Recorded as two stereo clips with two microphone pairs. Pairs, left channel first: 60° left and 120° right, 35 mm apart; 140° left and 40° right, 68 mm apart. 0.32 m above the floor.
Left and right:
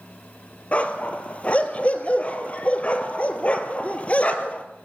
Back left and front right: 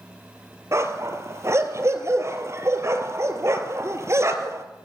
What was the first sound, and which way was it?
A dog barking, 5° left.